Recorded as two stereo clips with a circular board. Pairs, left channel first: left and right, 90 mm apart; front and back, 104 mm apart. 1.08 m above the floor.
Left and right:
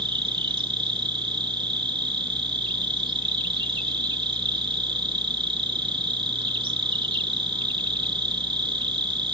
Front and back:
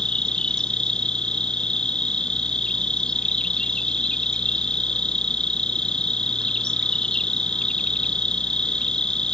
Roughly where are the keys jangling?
I don't hear keys jangling.